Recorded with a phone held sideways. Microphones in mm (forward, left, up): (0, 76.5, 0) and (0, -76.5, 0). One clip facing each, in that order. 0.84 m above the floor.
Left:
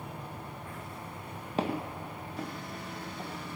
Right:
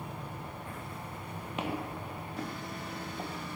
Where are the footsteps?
35° left (ahead or behind), 1.4 m; by 3.3 s 30° right (ahead or behind), 1.4 m.